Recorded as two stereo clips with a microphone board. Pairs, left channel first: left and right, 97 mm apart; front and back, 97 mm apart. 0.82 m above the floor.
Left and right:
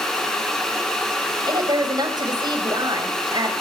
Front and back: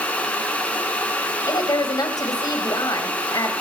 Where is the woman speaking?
50° right, 4.5 m.